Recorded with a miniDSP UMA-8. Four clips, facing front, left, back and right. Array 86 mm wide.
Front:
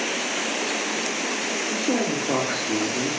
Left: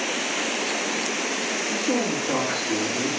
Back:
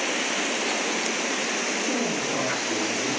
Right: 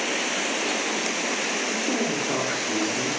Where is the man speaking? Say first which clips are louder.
Left 3 dB, front 5 dB; straight ahead, 5.5 m.